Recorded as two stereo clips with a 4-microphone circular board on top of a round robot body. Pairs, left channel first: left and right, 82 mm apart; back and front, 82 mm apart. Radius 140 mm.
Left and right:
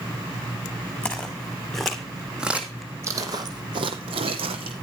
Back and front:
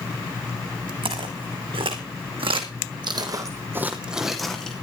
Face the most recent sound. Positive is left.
turn(degrees=-100)